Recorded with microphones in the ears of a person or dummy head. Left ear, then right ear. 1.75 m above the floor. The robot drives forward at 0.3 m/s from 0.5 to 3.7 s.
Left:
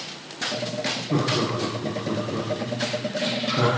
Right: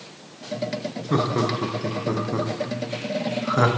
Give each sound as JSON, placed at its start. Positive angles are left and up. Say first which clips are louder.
{"t": 1.1, "sound": "laughter", "louder": "right 3 dB", "side_deg": -45, "distance_m": 1.0}